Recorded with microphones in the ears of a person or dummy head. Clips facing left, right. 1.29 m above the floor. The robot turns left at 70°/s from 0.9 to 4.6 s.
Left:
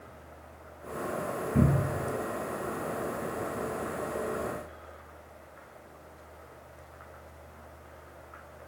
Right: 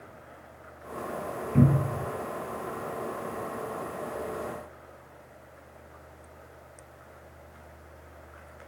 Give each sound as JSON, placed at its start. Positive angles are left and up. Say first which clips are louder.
{"t": 1.5, "sound": "a cupboard door", "louder": "right 4 dB", "side_deg": -60, "distance_m": 1.6}